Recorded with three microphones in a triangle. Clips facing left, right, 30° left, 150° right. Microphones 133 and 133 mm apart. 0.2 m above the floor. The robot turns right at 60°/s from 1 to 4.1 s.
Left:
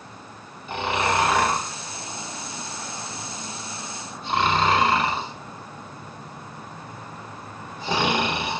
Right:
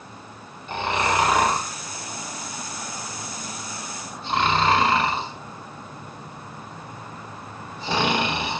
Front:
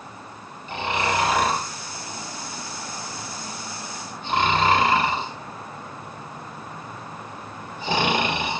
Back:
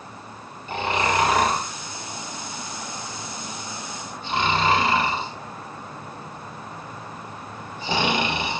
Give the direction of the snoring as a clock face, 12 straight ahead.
6 o'clock.